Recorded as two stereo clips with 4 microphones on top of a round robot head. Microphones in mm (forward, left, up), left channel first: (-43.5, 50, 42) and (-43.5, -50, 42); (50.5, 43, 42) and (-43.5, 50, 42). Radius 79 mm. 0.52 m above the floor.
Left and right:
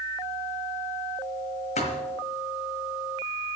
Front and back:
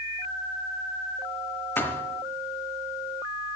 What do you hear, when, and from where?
1.8 s a thud: 65° left, 1.3 m